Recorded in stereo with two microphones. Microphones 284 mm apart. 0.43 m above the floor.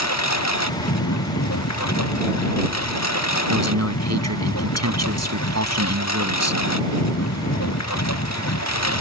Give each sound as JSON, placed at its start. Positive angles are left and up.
{"t": 0.0, "sound": "a lawn mower", "side_deg": 65}
{"t": 3.5, "sound": "a man speaking", "side_deg": -70}